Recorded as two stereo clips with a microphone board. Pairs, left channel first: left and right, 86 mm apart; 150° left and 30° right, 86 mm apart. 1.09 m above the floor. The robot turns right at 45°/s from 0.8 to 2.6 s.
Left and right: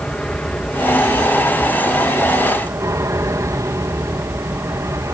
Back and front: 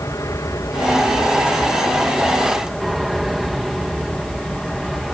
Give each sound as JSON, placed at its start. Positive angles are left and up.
{"t": 0.0, "sound": "an aircraft", "azimuth_deg": 160}